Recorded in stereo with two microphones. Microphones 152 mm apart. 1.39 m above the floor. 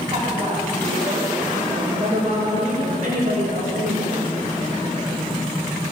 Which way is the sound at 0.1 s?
35° right (ahead or behind).